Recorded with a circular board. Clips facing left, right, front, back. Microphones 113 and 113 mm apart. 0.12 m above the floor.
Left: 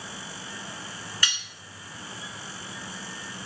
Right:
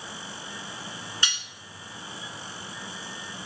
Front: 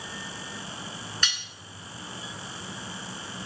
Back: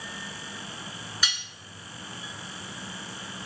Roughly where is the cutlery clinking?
Right.